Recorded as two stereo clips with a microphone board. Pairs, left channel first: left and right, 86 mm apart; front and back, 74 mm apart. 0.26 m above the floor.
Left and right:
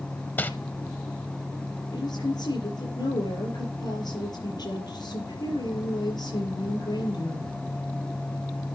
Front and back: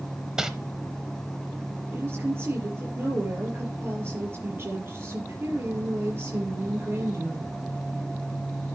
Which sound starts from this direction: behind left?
A woman speaking, at 1.9 s.